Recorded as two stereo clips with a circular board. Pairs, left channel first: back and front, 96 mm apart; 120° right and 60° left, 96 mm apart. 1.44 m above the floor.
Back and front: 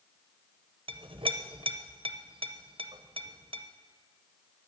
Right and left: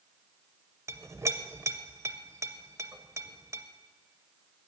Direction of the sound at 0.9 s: 5° left.